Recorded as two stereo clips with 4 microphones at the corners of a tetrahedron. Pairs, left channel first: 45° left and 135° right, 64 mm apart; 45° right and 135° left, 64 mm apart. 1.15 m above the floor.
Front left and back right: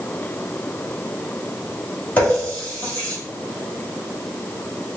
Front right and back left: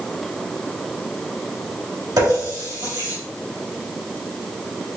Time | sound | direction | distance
2.2 | a running tap | 115° left | 1.8 m